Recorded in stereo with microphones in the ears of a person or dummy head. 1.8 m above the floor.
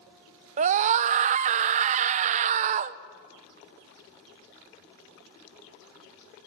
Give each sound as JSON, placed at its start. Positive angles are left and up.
{"t": 0.6, "sound": "a scream", "side_deg": -40, "distance_m": 0.9}